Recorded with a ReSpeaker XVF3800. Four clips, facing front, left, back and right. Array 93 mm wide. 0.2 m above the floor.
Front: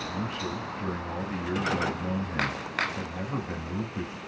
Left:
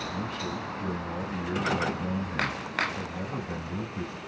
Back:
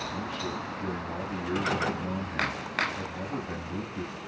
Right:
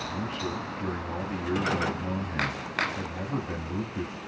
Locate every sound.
0.1 s a man speaking: 40° right, 1.1 m